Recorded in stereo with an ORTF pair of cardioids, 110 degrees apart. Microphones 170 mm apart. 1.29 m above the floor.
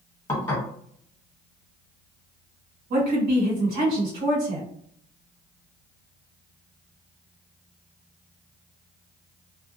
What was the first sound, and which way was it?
Dishes clattering, 20° left.